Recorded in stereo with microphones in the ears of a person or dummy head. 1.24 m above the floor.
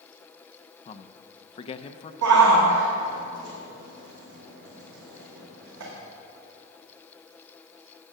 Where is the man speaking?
25° left (ahead or behind), 0.6 m.